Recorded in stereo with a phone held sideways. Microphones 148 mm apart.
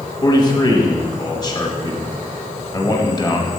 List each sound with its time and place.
0.2 s a man speaking: 25° left (ahead or behind), 1.1 m